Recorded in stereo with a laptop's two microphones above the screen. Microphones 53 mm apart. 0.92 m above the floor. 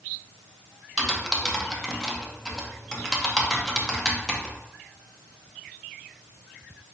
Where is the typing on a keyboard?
10° left (ahead or behind), 0.6 m.